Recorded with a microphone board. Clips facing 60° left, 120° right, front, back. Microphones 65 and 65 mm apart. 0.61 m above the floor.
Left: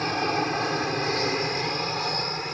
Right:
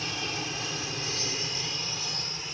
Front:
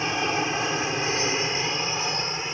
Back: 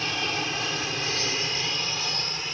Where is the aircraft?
60° left.